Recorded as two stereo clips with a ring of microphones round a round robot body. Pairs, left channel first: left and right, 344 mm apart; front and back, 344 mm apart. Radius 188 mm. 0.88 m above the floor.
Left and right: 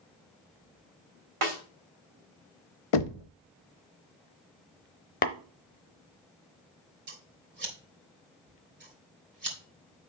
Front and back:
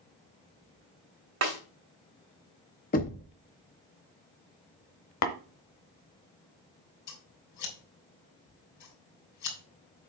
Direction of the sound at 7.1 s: 30° right.